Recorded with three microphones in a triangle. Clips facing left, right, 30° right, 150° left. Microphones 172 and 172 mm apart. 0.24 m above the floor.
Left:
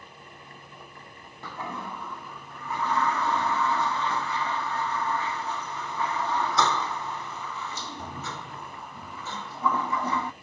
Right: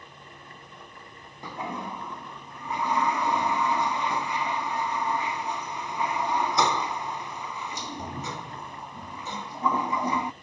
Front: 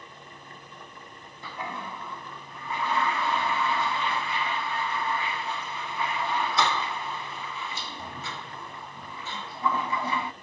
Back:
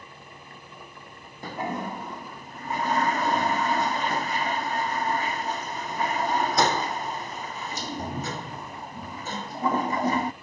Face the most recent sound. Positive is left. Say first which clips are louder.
# right 2 dB, back 6 dB
turn(degrees=-165)